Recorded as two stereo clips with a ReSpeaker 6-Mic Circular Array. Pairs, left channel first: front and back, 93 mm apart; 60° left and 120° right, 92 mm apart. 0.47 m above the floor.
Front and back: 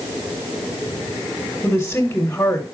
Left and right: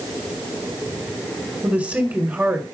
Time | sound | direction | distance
1.6 | a woman speaking | 65° right | 1.3 m